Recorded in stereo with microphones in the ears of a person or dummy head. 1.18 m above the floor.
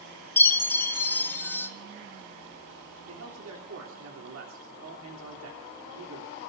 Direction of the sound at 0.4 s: 10° left (ahead or behind).